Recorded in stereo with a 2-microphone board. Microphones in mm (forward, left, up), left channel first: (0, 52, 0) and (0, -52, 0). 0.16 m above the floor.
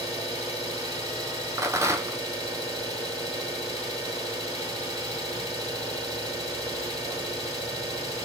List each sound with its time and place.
0.0 s an engine running: 35° right (ahead or behind), 2 m
1.6 s a rattle: 30° right (ahead or behind), 0.6 m